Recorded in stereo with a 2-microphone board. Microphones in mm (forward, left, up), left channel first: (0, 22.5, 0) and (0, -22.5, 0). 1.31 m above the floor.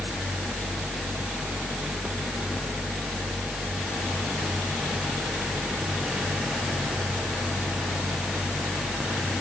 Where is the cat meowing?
I don't hear a cat meowing.